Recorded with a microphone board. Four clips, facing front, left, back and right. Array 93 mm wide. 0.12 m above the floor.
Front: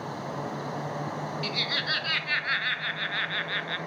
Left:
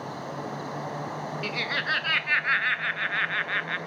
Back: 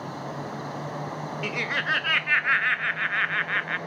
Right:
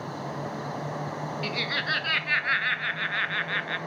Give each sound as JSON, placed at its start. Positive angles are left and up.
{"t": 1.4, "sound": "laughter", "azimuth_deg": 170, "distance_m": 1.1}